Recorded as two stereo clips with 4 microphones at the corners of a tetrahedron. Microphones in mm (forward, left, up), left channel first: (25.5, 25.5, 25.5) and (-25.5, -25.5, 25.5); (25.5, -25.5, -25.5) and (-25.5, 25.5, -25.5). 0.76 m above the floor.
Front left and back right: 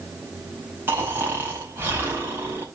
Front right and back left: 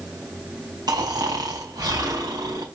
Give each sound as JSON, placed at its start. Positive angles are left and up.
{"t": 0.9, "sound": "snoring", "azimuth_deg": 165, "distance_m": 5.0}